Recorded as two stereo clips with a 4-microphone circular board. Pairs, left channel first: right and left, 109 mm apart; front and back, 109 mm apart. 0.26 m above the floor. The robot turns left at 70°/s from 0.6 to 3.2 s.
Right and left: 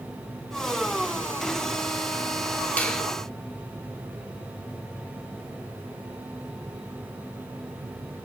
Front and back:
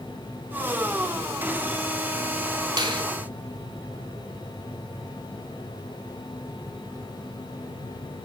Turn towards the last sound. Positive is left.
turn(degrees=175)